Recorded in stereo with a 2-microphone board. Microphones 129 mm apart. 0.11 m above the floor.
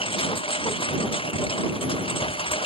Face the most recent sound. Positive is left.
turn(degrees=45)  # may be behind; listen again after turning